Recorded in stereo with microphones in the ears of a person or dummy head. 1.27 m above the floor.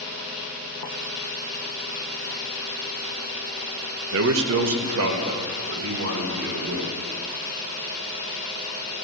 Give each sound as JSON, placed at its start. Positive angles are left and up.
{"t": 4.1, "sound": "a man speaking", "side_deg": -70, "distance_m": 0.9}